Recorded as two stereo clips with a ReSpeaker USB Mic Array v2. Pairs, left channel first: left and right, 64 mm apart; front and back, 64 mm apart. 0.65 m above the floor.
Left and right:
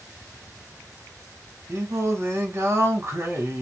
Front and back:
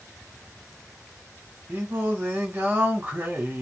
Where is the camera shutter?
No camera shutter in this recording.